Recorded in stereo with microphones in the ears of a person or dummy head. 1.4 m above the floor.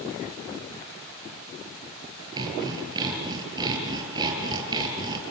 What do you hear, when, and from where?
2.4 s sawing: 25° right (ahead or behind), 5.5 m